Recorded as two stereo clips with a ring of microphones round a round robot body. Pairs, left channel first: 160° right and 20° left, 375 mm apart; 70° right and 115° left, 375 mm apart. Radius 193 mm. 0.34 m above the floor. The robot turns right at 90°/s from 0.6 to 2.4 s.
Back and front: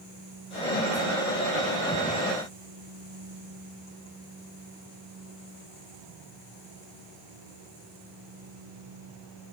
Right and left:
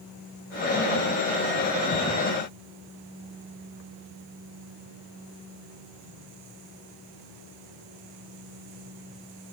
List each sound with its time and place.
Only background noise.